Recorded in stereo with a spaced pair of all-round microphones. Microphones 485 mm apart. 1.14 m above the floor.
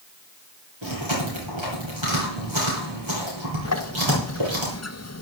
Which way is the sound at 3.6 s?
30° left (ahead or behind).